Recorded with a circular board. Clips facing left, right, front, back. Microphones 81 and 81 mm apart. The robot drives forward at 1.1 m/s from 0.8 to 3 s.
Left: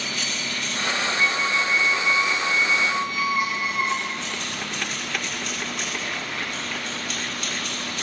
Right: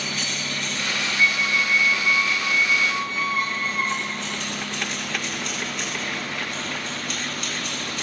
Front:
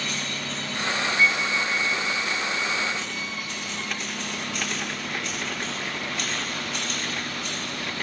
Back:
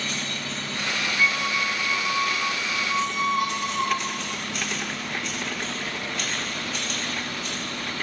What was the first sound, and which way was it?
A squeak, 130° left.